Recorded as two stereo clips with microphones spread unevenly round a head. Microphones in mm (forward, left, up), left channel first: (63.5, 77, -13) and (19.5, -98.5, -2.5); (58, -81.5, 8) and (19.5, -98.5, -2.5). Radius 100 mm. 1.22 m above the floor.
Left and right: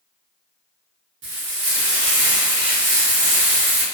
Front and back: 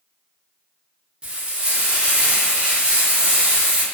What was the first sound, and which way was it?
Frying, 100° right.